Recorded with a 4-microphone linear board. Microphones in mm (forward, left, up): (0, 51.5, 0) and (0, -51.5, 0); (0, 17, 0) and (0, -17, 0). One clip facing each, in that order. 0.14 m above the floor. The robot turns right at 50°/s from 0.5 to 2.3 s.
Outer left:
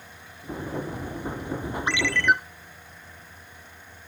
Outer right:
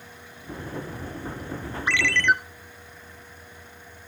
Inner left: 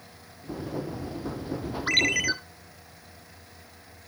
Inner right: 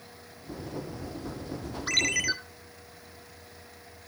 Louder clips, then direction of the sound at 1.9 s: Even, inner left 3 dB; 20° left (ahead or behind).